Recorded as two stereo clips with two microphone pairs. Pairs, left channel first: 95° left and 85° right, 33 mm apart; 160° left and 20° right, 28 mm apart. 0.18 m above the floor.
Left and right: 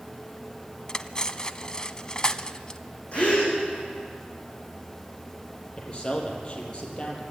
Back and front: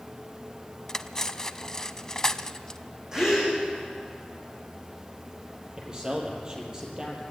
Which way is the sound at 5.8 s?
45° left.